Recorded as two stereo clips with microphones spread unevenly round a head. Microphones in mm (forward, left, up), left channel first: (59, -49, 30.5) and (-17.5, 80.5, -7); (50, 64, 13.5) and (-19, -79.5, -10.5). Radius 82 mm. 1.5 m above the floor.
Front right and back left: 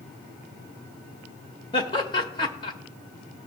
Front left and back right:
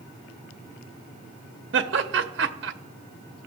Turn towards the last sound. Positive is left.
turn(degrees=-110)